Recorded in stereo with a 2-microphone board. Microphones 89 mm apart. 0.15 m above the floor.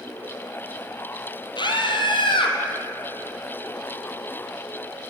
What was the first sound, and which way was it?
A scream, 55° left (ahead or behind).